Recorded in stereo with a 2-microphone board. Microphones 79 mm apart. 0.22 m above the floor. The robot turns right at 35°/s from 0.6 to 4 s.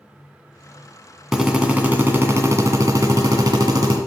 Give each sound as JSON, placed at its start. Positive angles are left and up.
{"t": 1.3, "sound": "a drill", "azimuth_deg": -175, "distance_m": 1.8}